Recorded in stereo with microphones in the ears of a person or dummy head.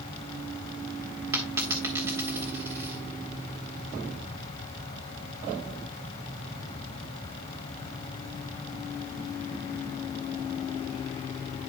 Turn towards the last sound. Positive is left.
turn(degrees=-15)  # may be behind; listen again after turning